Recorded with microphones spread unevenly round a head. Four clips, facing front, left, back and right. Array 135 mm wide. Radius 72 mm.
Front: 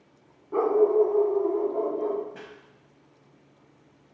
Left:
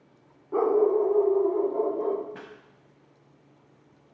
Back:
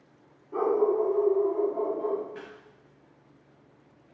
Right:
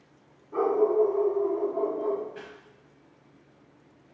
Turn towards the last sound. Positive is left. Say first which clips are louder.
# even, back 1 dB
turn(degrees=85)